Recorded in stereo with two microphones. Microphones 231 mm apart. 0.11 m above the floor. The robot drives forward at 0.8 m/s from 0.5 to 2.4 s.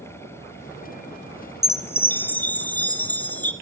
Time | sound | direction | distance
1.6 | a chime | 10° left (ahead or behind) | 0.8 m